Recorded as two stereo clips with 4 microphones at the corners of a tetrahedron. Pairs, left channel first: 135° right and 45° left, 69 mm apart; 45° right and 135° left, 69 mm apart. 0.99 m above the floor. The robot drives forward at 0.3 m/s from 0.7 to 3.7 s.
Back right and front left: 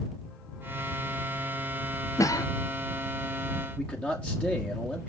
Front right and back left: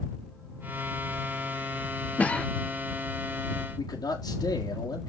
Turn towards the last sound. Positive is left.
turn(degrees=-65)